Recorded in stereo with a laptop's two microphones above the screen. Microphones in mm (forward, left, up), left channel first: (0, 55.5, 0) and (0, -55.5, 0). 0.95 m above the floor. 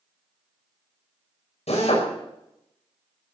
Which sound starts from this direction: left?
A drill, at 1.7 s.